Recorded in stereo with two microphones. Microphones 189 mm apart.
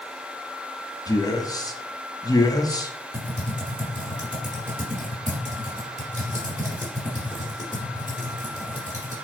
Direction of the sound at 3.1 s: 45° right (ahead or behind).